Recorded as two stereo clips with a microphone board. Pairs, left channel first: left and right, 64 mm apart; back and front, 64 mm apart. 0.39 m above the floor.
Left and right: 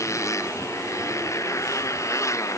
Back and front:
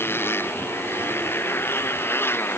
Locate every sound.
0.0 s a motorcycle: 125° left